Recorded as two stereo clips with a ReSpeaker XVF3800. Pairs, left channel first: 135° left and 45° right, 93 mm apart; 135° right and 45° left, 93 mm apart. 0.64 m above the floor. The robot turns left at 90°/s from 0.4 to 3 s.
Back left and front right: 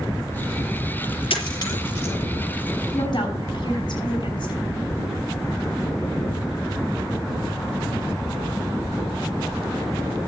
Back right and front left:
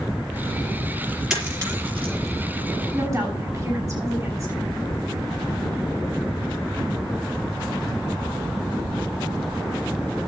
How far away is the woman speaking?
About 4.5 m.